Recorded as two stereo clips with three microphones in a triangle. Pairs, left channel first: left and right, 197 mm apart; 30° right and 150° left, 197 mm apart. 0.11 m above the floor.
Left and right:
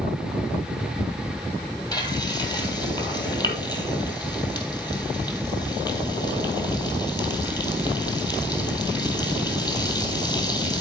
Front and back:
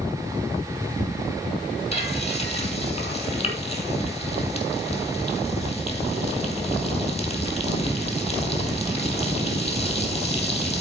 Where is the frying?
25° left, 2.5 m.